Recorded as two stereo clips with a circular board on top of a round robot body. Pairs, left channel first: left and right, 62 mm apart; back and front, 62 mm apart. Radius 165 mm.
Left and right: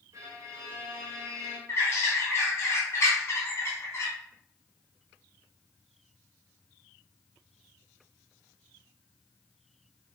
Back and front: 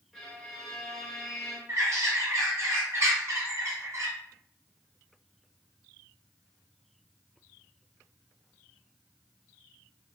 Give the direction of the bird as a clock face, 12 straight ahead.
11 o'clock.